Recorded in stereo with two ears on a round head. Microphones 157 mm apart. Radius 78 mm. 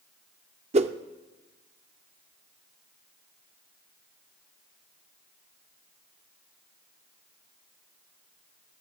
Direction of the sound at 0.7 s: 35° right (ahead or behind).